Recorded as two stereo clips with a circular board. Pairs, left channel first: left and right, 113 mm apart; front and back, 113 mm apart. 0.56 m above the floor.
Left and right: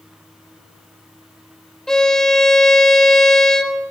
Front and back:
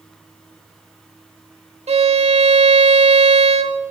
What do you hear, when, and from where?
1.9 s a violin: 175° left, 0.8 m